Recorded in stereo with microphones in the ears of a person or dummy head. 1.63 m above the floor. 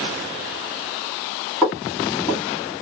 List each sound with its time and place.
1.6 s footsteps: centre (ahead or behind), 2.5 m